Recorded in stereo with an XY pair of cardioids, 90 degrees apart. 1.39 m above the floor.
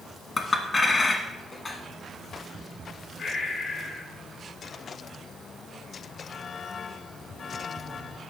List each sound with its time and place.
0.4 s a clink: 40° left, 1.3 m
3.2 s breathing: 60° left, 3.5 m